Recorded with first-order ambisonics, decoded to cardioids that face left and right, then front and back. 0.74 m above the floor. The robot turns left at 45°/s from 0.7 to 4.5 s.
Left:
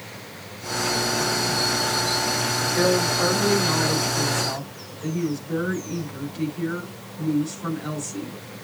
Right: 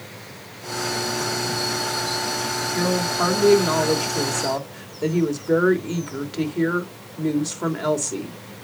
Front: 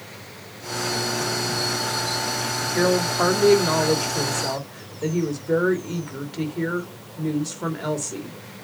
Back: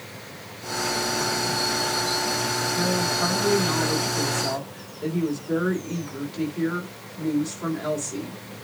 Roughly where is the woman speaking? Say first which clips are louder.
Left 2 dB, front 7 dB; ahead.